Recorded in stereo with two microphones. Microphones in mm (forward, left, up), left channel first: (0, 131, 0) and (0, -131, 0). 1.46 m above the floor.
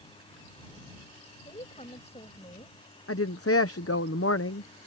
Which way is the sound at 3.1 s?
60° left (ahead or behind).